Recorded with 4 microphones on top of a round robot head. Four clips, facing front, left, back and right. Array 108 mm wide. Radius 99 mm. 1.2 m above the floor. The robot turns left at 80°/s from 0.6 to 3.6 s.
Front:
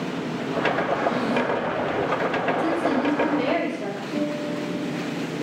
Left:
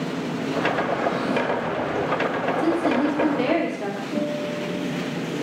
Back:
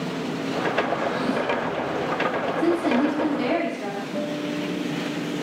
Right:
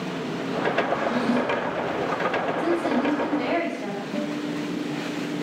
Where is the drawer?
65° right, 5 m; by 1.7 s 130° right, 5 m.